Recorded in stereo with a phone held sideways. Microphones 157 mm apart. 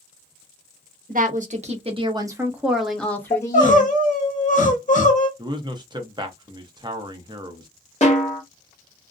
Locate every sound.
1.1 s a woman speaking: 60° right (ahead or behind), 1.0 m; by 3.9 s 25° left (ahead or behind), 1.2 m
3.3 s crying: 50° left (ahead or behind), 0.8 m
5.4 s a man speaking: 30° right (ahead or behind), 0.7 m
8.0 s a snare drum: 45° left (ahead or behind), 0.8 m